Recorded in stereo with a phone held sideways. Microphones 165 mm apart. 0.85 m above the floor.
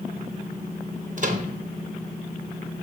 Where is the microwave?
50° right (ahead or behind), 0.7 m.